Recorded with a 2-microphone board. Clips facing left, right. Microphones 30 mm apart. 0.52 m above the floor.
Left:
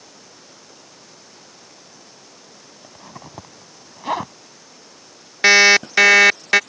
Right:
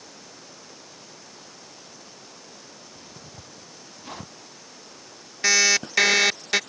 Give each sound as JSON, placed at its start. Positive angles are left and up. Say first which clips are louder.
{"t": 2.8, "sound": "a zipper", "louder": "left 5 dB", "side_deg": 80}
{"t": 5.4, "sound": "an alarm clock", "louder": "left 9 dB", "side_deg": 45}